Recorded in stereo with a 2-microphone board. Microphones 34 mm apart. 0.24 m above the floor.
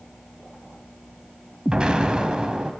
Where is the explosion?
25° right (ahead or behind), 0.5 m.